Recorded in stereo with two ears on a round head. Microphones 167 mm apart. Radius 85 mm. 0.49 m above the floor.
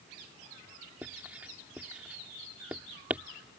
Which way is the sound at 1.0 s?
10° right (ahead or behind).